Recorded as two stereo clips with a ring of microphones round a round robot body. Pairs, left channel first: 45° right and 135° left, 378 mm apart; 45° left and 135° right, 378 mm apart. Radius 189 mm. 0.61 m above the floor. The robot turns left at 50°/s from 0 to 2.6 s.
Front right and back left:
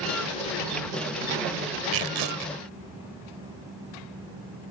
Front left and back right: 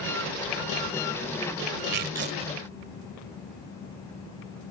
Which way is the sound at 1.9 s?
175° left.